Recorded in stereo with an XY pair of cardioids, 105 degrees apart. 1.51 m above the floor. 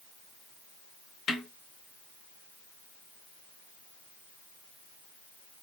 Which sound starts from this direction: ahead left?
A snare drum, at 1.3 s.